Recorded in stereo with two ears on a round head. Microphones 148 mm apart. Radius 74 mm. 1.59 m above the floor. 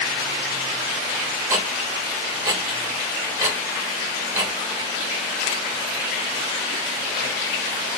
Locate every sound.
1.5 s ticking: 15° right (ahead or behind), 1.1 m